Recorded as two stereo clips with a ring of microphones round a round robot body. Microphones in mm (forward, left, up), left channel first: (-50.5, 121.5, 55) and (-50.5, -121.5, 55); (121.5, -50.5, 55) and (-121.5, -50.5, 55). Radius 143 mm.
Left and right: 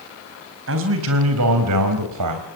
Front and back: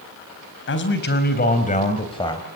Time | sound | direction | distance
0.7 | a man speaking | 45° right | 4 m